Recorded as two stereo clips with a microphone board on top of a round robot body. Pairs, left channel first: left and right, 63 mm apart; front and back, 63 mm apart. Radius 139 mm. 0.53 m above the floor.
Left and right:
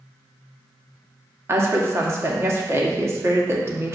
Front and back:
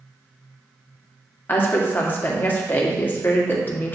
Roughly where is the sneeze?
I don't hear a sneeze.